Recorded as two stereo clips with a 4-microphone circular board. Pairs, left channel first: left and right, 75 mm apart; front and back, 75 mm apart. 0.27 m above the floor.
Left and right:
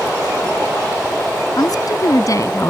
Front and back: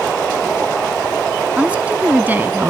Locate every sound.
1.6 s a woman speaking: 105° left; by 2.7 s 125° left